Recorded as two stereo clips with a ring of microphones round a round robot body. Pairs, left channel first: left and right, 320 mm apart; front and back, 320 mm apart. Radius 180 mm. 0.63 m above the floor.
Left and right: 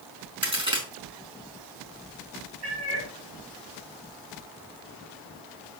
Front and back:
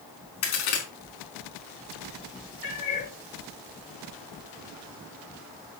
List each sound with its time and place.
0.4 s a crack: 15° right, 4.5 m
2.6 s a cat meowing: 50° right, 7.5 m